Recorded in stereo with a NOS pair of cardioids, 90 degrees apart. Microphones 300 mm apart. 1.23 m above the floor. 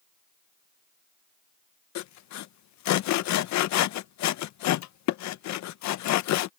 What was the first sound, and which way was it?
Sawing, 70° left.